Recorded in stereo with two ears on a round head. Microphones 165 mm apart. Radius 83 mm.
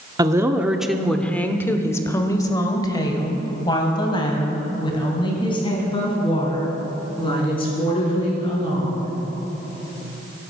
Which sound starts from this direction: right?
A woman speaking, at 0.2 s.